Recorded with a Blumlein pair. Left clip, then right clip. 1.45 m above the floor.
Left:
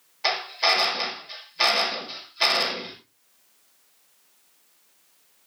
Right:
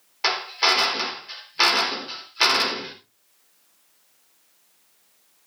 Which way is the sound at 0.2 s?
60° right.